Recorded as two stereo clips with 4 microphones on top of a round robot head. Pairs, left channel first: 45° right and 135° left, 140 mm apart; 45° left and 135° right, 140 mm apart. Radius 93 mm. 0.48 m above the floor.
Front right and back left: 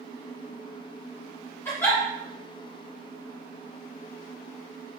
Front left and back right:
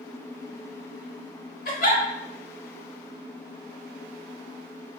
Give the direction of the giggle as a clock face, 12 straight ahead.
11 o'clock.